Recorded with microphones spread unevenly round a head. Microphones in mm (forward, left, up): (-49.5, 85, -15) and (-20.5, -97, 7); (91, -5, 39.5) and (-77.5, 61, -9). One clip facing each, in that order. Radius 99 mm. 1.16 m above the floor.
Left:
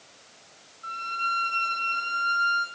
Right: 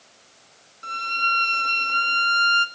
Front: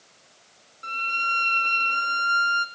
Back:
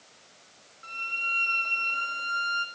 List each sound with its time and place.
0.8 s a violin: 70° right, 2.5 m